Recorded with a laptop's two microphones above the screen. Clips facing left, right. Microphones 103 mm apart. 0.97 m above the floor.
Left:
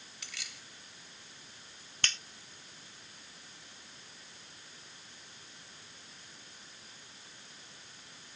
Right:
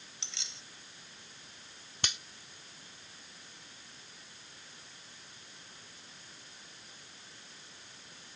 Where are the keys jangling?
25° right (ahead or behind).